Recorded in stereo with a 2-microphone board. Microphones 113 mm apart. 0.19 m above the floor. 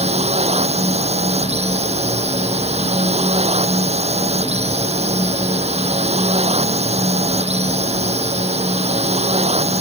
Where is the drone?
70° right (ahead or behind).